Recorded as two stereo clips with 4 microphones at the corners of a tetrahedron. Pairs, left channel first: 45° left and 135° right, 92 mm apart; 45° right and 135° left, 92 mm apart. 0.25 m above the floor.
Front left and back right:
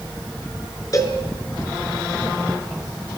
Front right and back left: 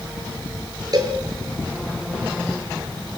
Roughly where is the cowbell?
Left.